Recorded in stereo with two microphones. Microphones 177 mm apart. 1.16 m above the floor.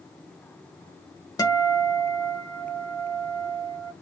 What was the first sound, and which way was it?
A guitar, 20° left (ahead or behind).